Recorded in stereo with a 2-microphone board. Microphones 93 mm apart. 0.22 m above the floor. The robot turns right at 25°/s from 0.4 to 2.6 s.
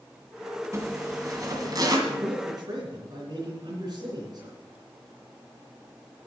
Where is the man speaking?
55° right (ahead or behind), 3.5 m; by 4.6 s 45° right (ahead or behind), 3.5 m.